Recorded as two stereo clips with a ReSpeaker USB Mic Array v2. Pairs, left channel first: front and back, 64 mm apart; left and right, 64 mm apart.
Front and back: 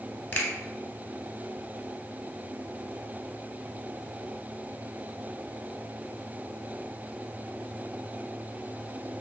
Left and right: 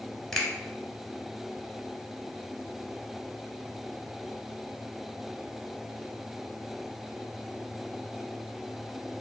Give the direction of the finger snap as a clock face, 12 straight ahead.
12 o'clock.